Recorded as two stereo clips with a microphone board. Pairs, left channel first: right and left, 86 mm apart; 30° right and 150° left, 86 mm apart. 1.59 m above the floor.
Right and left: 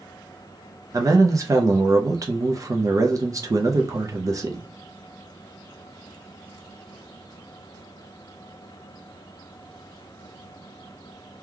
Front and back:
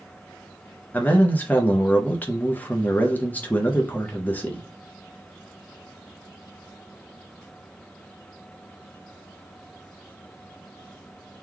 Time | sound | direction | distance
0.9 | a man speaking | 40° left | 0.7 m